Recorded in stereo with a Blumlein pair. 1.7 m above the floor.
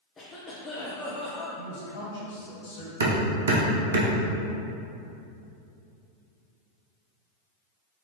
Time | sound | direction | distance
0.2 | a cough | 15° left | 0.6 m
1.6 | a man speaking | 60° left | 1.6 m
3.0 | hammering | 65° right | 0.7 m